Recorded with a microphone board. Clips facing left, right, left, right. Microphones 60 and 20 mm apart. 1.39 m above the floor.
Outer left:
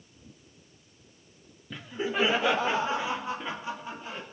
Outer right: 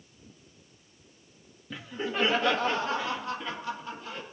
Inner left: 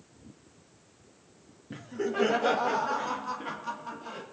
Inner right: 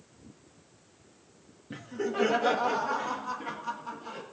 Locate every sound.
1.7 s laughter: 5° right (ahead or behind), 0.8 m; by 4.2 s 20° left (ahead or behind), 2.5 m